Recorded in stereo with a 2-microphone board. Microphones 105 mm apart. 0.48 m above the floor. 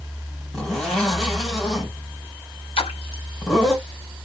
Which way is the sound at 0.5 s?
5° left (ahead or behind).